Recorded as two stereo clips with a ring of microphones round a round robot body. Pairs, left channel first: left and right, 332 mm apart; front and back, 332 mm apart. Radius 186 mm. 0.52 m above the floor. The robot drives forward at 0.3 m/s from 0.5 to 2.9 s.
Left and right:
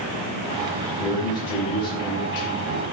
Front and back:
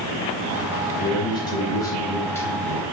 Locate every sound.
1.0 s a man speaking: 75° left, 4 m; by 2.8 s 85° left, 4 m